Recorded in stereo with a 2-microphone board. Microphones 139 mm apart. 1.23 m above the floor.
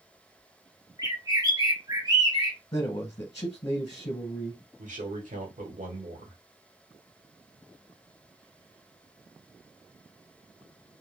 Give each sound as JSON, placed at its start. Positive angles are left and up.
{"t": 1.0, "sound": "a bird", "side_deg": -30, "distance_m": 0.7}
{"t": 2.7, "sound": "a man speaking", "side_deg": 40, "distance_m": 0.8}
{"t": 4.8, "sound": "a man speaking", "side_deg": -65, "distance_m": 1.2}